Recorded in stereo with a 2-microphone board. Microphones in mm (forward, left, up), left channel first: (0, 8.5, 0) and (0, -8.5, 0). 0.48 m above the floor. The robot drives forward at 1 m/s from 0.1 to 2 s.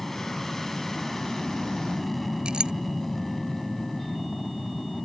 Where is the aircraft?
15° left (ahead or behind).